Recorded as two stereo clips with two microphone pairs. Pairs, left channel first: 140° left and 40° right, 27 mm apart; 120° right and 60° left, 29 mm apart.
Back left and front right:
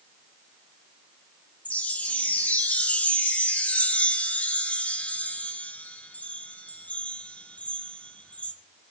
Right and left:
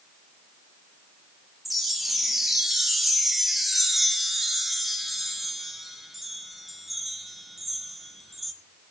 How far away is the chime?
About 0.9 m.